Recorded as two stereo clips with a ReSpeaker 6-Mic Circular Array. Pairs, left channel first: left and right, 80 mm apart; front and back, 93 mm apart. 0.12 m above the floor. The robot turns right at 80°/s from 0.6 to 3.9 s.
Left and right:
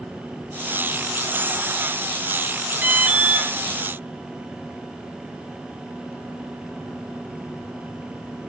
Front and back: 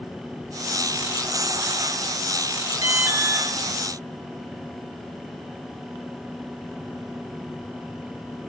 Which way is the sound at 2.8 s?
145° right.